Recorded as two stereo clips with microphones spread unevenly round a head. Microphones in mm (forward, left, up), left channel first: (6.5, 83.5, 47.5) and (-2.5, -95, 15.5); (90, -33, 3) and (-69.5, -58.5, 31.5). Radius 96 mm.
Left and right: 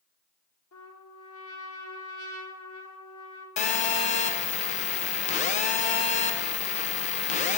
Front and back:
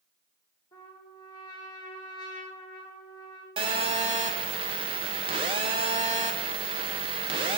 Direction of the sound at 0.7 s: 80° left.